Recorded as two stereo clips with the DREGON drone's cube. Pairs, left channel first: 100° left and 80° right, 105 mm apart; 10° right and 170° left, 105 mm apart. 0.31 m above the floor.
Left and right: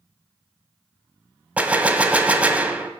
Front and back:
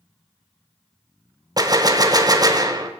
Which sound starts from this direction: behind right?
A gunshot, at 1.6 s.